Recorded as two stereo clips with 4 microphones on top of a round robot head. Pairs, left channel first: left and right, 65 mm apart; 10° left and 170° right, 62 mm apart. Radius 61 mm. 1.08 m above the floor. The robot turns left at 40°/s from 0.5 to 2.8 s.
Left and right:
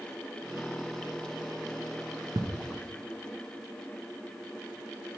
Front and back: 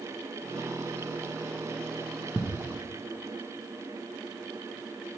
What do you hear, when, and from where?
2.4 s ticking: 75° right, 0.5 m; by 2.4 s 80° right, 0.5 m